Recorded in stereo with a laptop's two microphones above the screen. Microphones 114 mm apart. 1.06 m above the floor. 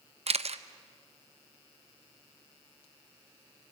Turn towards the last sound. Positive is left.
turn(degrees=-65)  # may be behind; listen again after turning